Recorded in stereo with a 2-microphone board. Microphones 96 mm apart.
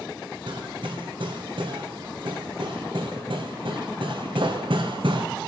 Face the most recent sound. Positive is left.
turn(degrees=-70)  # may be behind; listen again after turning